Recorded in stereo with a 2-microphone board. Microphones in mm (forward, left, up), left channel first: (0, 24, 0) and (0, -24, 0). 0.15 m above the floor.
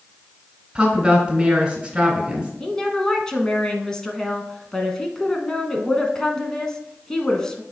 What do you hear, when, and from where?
0.8 s a woman speaking: 10° right (ahead or behind), 1.7 m
2.6 s a woman speaking: 10° left (ahead or behind), 1.1 m